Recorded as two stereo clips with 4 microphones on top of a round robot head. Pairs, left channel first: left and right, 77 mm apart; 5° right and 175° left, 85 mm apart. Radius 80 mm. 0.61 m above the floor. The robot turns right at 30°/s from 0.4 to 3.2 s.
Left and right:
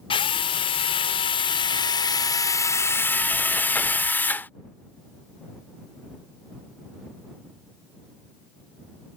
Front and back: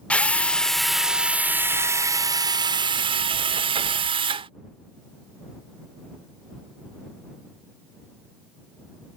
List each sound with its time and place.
0.1 s a drill: 75° left; by 4.5 s 160° left